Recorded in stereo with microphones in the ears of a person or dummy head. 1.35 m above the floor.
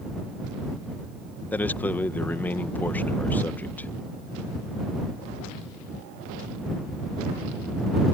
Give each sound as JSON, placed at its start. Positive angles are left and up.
{"t": 1.5, "sound": "a man speaking", "side_deg": 10}